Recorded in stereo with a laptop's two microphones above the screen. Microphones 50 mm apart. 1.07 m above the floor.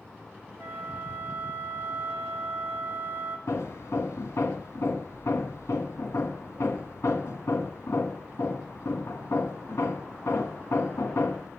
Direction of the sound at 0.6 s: 40° right (ahead or behind).